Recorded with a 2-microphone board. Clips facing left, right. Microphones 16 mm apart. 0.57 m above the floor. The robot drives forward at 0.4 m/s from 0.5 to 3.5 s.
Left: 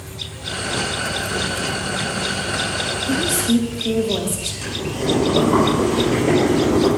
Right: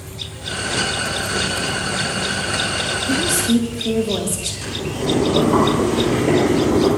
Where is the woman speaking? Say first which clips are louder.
Right 1 dB; 30° right (ahead or behind), 1.0 m.